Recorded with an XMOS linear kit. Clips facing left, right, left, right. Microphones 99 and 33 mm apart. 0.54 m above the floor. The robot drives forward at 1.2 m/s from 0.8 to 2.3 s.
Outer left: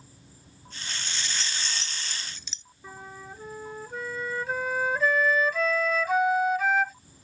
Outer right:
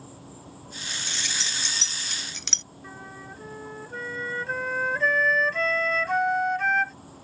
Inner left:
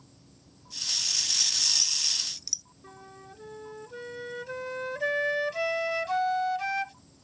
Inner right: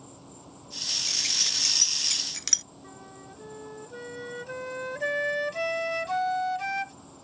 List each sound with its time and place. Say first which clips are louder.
0.0 s an insect: outer right 11 dB, inner right 10 dB; 75° right (ahead or behind); by 7.2 s 70° right (ahead or behind)
1.1 s keys jangling: even, inner right 2 dB; 65° right (ahead or behind); by 2.6 s 80° right
2.8 s a flute: even, inner right 2 dB; 5° left (ahead or behind)